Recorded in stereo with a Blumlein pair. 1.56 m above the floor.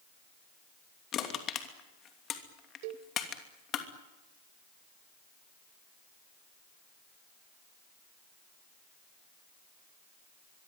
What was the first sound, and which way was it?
Crushing, 30° left.